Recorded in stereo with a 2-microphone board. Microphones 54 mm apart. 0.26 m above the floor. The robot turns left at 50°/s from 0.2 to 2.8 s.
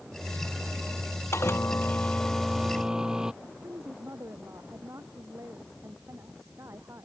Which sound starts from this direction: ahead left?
A microwave, at 1.3 s.